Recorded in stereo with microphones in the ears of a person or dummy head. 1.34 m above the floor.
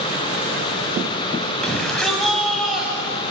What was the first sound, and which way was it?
A shout, 5° left (ahead or behind).